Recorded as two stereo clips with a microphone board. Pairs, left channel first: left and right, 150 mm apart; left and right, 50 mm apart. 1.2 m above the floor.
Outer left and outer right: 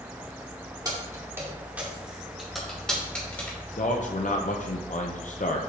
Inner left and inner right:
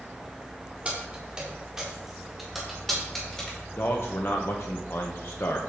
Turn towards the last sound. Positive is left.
turn(degrees=55)  # may be behind; listen again after turning